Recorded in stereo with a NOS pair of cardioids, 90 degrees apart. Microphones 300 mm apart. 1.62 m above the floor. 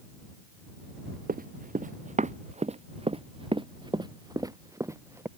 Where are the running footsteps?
25° right; by 5.3 s 5° right.